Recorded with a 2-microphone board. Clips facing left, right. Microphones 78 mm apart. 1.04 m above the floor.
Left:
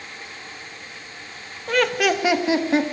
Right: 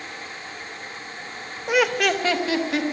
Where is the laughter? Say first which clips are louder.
Even; 15° right (ahead or behind), 1.0 m; by 2.8 s 30° left (ahead or behind), 1.4 m.